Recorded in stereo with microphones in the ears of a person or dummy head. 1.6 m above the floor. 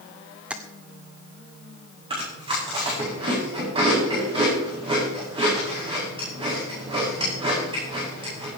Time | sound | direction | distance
0.5 | tapping | centre (ahead or behind) | 1.0 m
2.1 | chewing | 25° right (ahead or behind) | 9.5 m